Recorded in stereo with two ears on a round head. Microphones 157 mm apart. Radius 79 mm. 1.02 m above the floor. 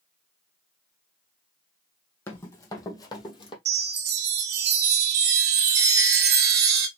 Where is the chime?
60° right (ahead or behind), 1.5 m.